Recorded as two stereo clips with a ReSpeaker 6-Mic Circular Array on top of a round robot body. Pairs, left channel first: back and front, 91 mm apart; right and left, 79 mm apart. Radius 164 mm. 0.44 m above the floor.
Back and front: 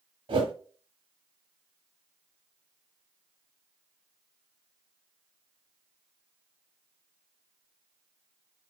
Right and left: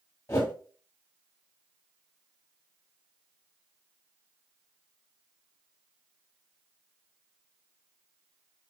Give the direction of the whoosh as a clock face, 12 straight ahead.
1 o'clock.